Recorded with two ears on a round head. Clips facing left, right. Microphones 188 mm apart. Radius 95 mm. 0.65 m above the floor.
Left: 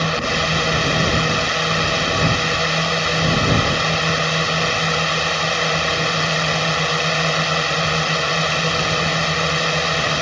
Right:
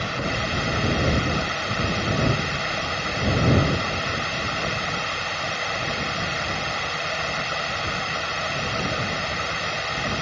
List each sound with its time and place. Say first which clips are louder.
0.0 s a drone: left 6 dB; 70° left (ahead or behind)